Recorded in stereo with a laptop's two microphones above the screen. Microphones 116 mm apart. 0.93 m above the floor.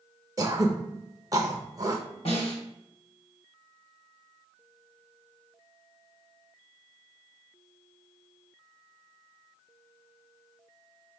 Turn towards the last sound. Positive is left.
turn(degrees=55)  # may be behind; listen again after turning